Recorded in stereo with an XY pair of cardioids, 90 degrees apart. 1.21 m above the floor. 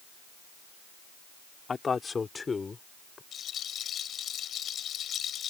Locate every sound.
1.7 s a man speaking: 40° left; by 3.2 s 30° left
3.3 s a rattle: 70° left